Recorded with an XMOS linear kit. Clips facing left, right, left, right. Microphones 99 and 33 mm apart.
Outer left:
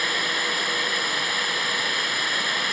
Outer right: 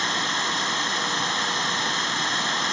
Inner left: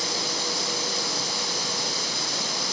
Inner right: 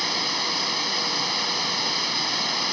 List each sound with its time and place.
0.0 s running water: 25° right (ahead or behind)